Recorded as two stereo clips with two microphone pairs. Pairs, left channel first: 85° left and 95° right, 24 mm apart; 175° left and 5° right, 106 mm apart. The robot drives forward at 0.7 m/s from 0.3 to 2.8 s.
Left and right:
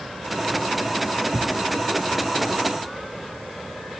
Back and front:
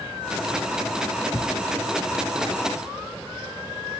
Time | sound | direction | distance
1.3 | a thud | 115° right | 1.0 m